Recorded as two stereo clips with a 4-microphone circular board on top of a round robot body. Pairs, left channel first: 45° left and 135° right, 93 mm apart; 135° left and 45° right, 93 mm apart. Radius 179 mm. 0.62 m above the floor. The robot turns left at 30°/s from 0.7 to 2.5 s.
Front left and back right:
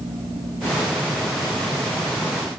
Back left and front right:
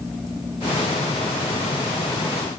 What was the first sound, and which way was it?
Only background noise.